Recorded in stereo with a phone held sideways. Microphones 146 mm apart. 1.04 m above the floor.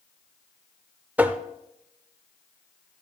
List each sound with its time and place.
1.2 s tapping: 10° right (ahead or behind), 0.7 m